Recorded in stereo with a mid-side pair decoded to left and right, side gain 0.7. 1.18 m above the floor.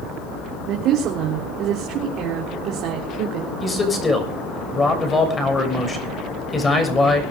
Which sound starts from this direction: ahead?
A man speaking, at 3.6 s.